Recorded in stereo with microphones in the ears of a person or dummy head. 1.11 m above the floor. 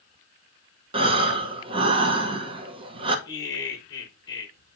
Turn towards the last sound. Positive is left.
turn(degrees=20)  # may be behind; listen again after turning